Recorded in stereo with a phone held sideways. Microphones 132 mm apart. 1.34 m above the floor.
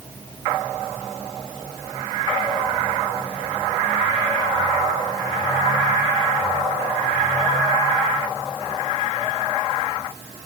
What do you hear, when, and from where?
Only background noise.